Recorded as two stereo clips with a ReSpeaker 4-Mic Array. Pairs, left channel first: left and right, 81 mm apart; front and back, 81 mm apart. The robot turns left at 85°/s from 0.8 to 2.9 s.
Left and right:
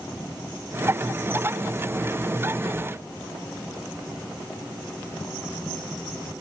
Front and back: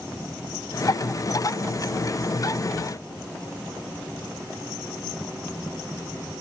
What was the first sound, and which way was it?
Only background noise.